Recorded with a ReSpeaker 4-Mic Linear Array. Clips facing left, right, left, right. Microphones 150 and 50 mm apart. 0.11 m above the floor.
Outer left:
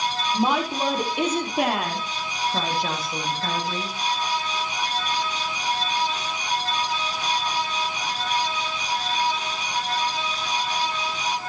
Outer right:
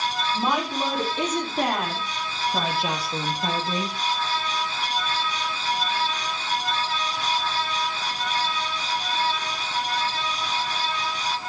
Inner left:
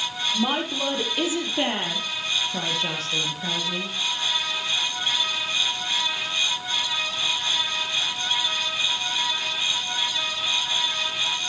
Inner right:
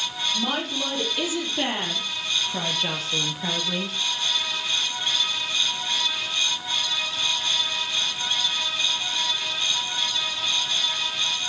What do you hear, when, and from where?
0.3 s a woman speaking: 20° left (ahead or behind), 4.5 m; by 4.0 s 25° right (ahead or behind), 2.5 m